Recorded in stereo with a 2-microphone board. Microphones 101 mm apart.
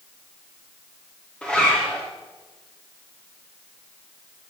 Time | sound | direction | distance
1.4 | a zipper | 10° left (ahead or behind) | 2.5 m